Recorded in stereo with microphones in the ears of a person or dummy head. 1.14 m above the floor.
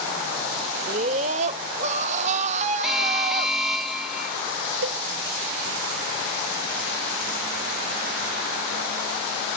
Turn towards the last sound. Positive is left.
turn(degrees=-60)  # may be behind; listen again after turning